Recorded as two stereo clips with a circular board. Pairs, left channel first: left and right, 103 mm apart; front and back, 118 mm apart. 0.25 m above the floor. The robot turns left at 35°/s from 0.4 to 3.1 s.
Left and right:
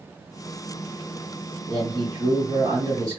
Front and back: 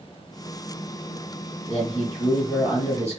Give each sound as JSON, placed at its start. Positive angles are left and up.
{"t": 1.7, "sound": "a man speaking", "azimuth_deg": -75, "distance_m": 1.4}